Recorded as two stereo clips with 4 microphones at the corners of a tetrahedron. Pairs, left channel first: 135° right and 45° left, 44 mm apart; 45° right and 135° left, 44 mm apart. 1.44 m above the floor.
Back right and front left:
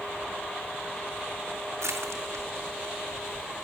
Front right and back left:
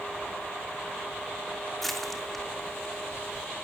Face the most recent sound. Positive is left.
turn(degrees=45)